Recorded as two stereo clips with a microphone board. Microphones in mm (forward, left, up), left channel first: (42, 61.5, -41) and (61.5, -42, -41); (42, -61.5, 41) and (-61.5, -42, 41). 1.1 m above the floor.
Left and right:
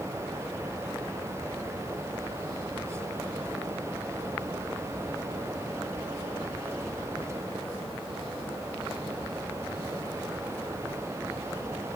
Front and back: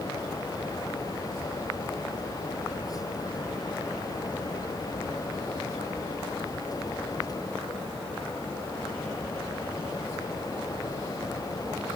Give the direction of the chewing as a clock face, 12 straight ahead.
No chewing in this recording.